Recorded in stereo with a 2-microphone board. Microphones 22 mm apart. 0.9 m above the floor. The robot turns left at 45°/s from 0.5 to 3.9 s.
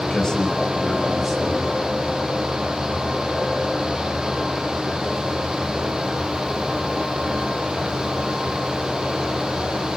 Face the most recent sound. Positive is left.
turn(degrees=-125)